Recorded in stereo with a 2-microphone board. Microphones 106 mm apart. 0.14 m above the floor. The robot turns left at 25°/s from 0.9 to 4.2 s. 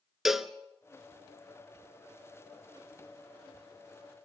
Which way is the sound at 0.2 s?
5° right (ahead or behind).